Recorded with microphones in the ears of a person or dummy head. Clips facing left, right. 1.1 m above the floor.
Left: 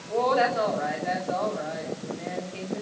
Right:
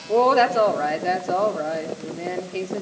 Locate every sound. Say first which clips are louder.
0.1 s a woman speaking: right 6 dB; 60° right (ahead or behind), 3 m